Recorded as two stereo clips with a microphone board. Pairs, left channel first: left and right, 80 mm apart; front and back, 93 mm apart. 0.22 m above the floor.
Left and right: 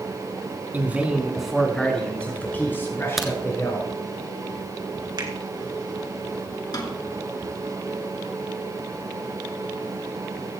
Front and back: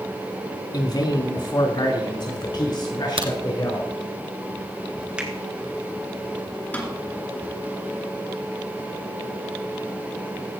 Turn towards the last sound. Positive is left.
turn(degrees=70)